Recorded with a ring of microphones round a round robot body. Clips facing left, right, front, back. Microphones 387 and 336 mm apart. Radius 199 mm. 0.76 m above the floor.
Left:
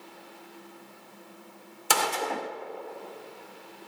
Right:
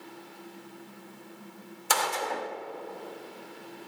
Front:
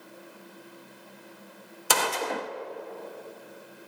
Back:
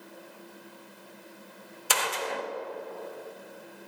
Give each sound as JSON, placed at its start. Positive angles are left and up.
{"t": 1.9, "sound": "a gunshot", "azimuth_deg": 40, "distance_m": 0.7}